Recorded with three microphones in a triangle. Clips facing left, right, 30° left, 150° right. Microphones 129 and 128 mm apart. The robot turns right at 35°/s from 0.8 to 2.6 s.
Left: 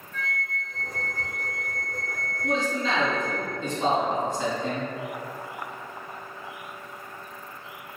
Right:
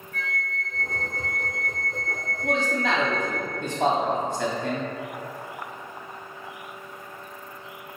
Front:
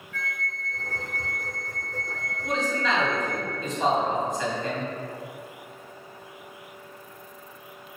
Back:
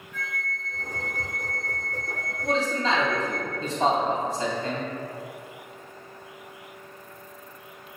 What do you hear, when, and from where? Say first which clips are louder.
0.1 s a flute: even, even; 80° right, 1.6 m; by 3.4 s 15° right, 1.6 m
2.4 s a man speaking: right 1 dB, back 2 dB; 100° right, 2.5 m; by 4.9 s 95° right, 2.5 m